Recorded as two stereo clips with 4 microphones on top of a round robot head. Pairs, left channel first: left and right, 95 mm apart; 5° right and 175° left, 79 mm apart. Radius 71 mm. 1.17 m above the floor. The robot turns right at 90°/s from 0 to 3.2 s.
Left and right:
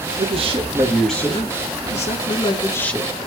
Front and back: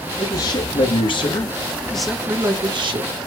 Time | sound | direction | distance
0.2 | a man speaking | 80° right | 2 m